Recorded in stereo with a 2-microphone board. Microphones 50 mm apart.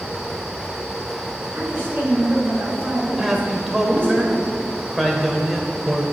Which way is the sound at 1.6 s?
40° right (ahead or behind).